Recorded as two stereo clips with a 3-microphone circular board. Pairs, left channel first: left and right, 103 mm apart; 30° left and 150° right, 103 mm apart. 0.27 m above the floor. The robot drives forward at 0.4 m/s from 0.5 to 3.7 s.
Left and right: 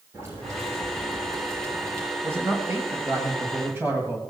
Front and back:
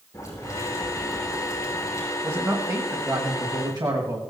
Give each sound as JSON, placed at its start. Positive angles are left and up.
{"t": 0.1, "sound": "boiling", "azimuth_deg": -30, "distance_m": 6.0}
{"t": 2.2, "sound": "a man speaking", "azimuth_deg": -125, "distance_m": 1.4}